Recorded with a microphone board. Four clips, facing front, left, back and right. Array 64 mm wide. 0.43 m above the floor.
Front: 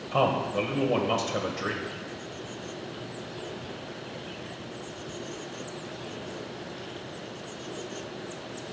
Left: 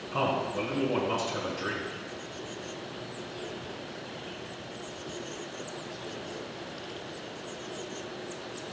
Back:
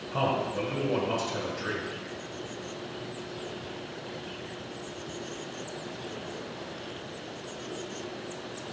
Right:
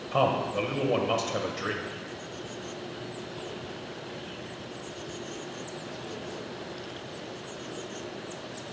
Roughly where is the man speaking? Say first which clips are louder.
Right 3 dB, front 3 dB; ahead right.